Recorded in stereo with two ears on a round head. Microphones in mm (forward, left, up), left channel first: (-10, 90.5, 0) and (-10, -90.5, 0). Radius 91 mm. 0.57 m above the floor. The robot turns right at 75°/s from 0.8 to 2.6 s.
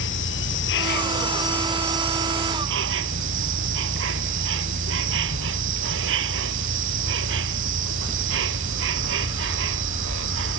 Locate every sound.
0.0 s an insect: 115° left; by 10.6 s 110° right